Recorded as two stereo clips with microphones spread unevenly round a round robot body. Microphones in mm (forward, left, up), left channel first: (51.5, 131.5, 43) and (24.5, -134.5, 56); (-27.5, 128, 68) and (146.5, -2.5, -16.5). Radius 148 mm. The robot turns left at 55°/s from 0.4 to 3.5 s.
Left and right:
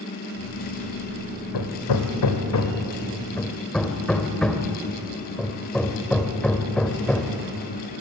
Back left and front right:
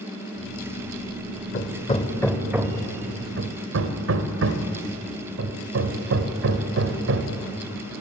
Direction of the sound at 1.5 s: 105° left.